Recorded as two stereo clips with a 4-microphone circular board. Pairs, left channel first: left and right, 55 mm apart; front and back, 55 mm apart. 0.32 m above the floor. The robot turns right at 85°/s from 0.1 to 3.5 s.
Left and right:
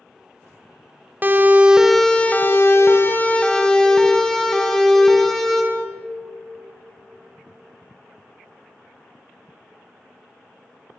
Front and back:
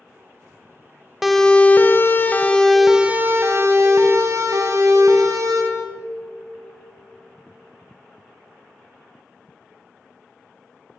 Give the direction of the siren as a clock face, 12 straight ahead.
3 o'clock.